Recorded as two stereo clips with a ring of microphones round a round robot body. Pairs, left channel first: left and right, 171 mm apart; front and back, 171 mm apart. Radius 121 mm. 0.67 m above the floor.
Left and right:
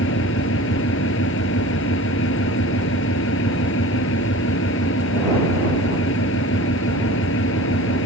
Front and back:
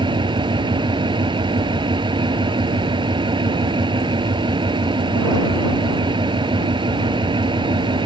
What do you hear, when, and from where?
0.0 s an engine running: 120° left